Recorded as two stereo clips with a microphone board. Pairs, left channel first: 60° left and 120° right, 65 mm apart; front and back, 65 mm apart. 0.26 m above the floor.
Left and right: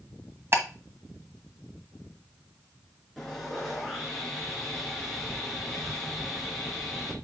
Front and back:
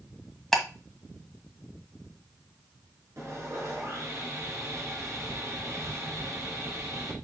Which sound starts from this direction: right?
Ticking, at 0.5 s.